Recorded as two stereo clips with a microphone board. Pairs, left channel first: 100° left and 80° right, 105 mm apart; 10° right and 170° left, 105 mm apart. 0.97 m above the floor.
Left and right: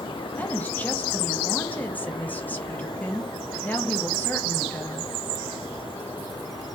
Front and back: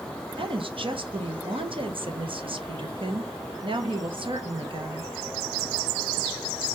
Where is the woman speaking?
170° left, 0.7 m.